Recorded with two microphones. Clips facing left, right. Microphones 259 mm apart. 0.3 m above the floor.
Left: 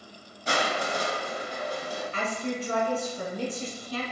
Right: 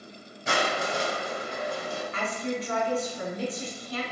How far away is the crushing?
About 0.8 m.